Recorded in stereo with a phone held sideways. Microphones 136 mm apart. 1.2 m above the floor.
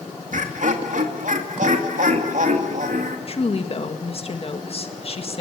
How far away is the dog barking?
I don't hear a dog barking.